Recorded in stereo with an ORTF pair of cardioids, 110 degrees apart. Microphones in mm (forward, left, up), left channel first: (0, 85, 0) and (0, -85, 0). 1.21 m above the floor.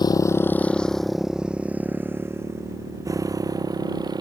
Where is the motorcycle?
25° left; by 4.2 s 25° right.